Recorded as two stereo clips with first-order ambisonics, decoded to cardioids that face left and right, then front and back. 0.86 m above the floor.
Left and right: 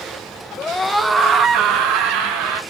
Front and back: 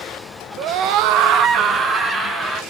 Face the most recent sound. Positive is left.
turn(degrees=-100)